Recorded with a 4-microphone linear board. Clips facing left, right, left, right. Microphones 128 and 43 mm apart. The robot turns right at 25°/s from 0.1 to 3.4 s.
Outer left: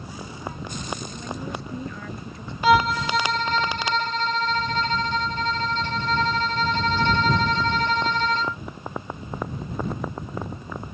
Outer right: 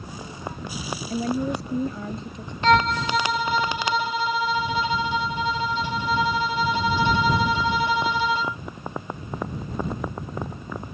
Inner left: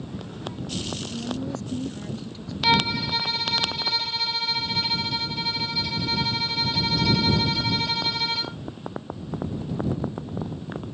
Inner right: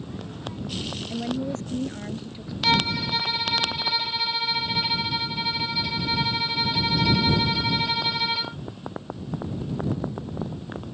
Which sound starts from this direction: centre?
A violin, at 2.6 s.